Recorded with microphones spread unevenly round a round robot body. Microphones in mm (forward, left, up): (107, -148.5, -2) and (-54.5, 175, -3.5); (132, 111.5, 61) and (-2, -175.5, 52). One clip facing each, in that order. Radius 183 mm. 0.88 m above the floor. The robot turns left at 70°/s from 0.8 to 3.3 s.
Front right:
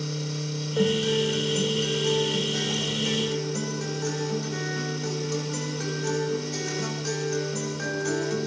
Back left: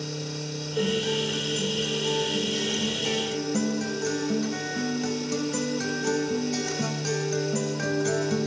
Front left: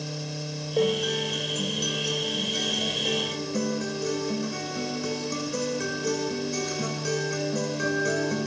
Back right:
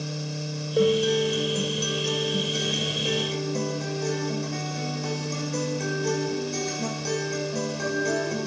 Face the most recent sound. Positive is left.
turn(degrees=145)